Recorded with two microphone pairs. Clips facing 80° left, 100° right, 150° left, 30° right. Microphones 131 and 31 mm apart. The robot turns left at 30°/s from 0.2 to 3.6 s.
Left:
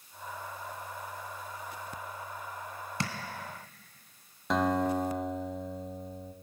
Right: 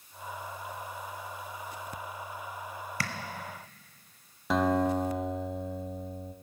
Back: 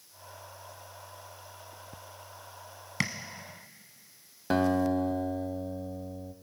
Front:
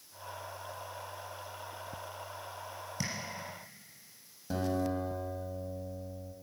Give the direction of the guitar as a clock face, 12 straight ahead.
6 o'clock.